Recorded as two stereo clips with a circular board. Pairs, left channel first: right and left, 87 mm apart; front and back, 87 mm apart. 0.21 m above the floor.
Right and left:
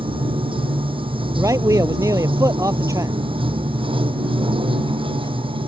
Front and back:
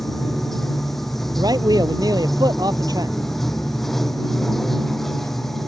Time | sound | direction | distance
0.0 | running water | 85° left | ?
1.4 | a man speaking | 140° left | ?